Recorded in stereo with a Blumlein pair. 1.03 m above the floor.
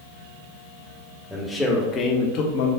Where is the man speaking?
Straight ahead, 1.0 m; by 2.7 s 60° left, 0.7 m.